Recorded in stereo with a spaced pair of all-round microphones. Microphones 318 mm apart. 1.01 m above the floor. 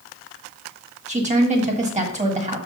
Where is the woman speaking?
20° right (ahead or behind), 1.4 m.